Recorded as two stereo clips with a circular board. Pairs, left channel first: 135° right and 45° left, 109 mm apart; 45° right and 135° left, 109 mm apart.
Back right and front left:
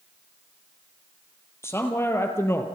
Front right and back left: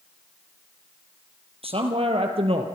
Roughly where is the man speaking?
Behind.